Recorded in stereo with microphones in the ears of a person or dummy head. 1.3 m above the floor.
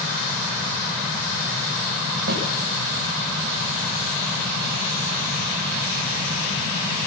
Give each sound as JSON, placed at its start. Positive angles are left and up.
{"t": 2.3, "sound": "a snare drum", "side_deg": -55, "distance_m": 9.0}